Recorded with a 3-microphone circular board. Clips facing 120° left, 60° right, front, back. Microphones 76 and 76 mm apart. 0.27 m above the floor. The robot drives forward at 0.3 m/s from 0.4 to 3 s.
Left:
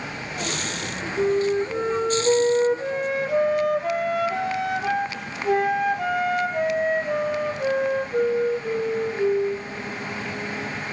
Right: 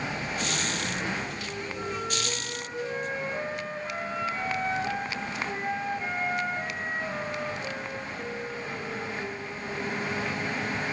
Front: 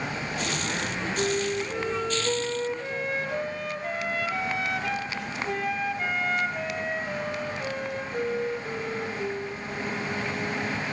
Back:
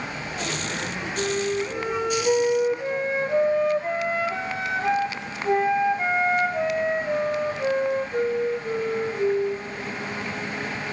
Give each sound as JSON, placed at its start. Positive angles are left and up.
{"t": 1.2, "sound": "a flute", "azimuth_deg": 100, "distance_m": 2.0}